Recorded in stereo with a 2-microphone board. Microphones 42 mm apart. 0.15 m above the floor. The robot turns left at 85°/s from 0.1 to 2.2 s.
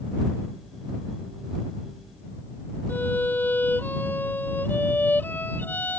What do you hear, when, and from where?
2.9 s a violin: 50° left (ahead or behind)